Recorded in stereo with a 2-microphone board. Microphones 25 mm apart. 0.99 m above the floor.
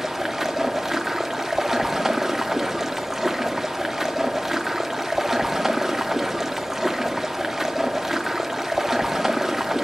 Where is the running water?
10° right (ahead or behind), 0.9 m.